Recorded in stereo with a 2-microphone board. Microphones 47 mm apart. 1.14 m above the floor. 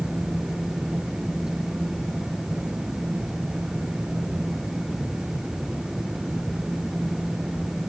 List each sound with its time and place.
Only background noise.